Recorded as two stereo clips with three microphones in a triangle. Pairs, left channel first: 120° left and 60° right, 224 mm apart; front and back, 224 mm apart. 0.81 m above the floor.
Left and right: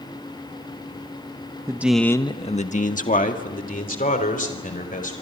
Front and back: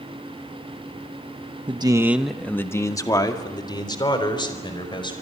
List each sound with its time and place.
1.7 s a man speaking: 125° right, 1.0 m; by 5.1 s 70° left, 4.5 m